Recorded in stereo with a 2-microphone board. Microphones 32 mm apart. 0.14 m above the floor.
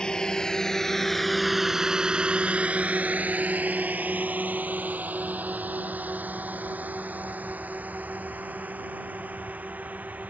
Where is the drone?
30° left (ahead or behind); by 10.3 s 60° right (ahead or behind).